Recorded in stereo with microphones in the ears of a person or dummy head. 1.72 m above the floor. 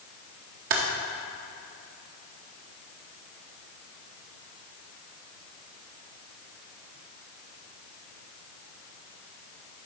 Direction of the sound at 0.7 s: 50° right (ahead or behind).